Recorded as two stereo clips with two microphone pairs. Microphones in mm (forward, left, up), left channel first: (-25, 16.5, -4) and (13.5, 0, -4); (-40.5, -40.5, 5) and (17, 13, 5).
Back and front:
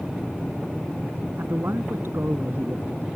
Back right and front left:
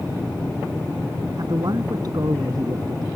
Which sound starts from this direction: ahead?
A man speaking, at 1.4 s.